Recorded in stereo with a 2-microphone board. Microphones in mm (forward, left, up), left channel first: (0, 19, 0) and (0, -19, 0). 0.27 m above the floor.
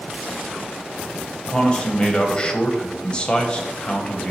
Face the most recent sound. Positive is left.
turn(degrees=25)  # may be behind; listen again after turning